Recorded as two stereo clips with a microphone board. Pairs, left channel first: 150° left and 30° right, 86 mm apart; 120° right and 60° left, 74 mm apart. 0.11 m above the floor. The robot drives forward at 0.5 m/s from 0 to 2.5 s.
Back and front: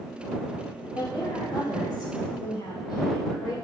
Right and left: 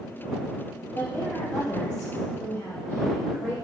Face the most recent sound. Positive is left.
turn(degrees=180)